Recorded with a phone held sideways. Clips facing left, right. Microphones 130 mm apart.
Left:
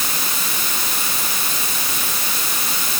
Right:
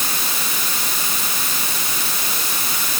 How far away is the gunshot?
I don't hear a gunshot.